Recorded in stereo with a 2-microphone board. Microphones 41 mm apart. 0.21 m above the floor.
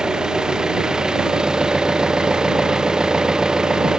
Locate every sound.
0.0 s an engine running: 15° right (ahead or behind)